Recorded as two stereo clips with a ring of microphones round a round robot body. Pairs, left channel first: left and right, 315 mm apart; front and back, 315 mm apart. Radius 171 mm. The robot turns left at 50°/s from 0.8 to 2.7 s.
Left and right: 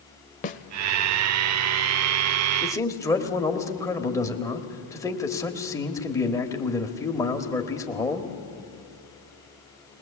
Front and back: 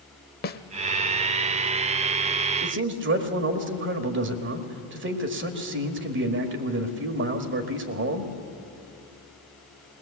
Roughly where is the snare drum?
Ahead left.